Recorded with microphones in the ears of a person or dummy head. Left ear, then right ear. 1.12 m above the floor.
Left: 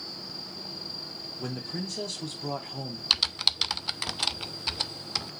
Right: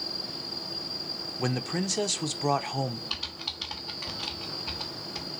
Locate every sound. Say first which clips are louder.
1.4 s a man speaking: right 6 dB; 35° right (ahead or behind), 0.7 m
3.1 s typing on a keyboard: left 9 dB; 70° left (ahead or behind), 0.5 m